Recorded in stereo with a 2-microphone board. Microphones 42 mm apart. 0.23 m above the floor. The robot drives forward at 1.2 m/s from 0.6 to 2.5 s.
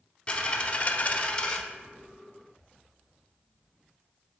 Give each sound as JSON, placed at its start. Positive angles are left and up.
{"t": 0.3, "sound": "a dropped coin", "side_deg": 25, "distance_m": 0.6}